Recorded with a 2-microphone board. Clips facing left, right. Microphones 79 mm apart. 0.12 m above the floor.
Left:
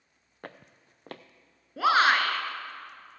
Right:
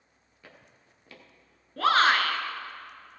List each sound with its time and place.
0.4 s footsteps: 55° left (ahead or behind), 0.8 m
1.8 s a shout: 10° left (ahead or behind), 1.2 m